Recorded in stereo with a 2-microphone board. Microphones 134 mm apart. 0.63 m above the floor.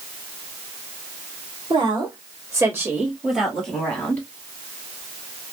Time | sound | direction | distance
1.7 | a woman speaking | 40° right (ahead or behind) | 1.4 m